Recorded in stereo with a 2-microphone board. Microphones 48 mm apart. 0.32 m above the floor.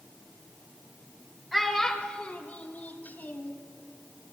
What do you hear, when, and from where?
1.5 s a child speaking: centre (ahead or behind), 1.3 m; by 3.6 s 30° left (ahead or behind), 2 m